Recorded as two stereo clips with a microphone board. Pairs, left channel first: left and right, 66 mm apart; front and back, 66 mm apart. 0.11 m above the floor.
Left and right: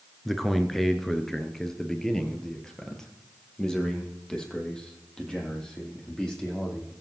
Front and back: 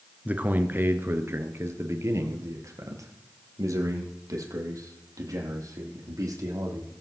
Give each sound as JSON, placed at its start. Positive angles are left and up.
{"t": 0.2, "sound": "a man speaking", "azimuth_deg": 175, "distance_m": 1.1}